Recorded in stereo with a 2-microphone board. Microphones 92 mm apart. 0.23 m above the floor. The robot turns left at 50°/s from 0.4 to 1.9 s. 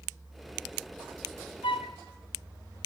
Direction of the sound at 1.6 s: 80° left.